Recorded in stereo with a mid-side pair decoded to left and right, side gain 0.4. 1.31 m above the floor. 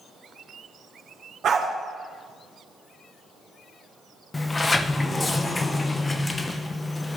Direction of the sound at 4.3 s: 30° left.